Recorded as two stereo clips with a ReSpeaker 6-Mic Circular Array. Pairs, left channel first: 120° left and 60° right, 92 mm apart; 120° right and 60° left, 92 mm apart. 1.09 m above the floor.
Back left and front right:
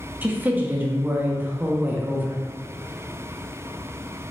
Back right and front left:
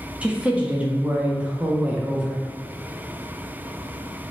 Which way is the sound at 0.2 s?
5° right.